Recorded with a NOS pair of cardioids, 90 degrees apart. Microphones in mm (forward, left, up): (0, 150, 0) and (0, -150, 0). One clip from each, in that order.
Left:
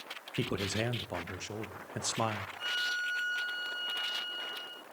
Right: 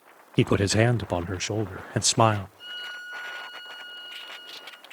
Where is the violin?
25° left, 6 m.